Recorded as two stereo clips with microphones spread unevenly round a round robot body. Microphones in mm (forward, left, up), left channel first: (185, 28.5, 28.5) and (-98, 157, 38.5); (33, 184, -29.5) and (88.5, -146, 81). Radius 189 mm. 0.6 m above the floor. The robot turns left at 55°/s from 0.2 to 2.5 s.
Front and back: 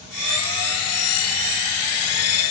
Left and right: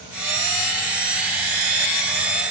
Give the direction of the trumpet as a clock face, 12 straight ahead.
I don't hear a trumpet.